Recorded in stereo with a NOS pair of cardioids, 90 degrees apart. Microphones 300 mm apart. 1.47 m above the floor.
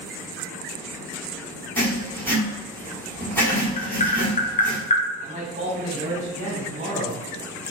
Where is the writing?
5° left, 1.1 m.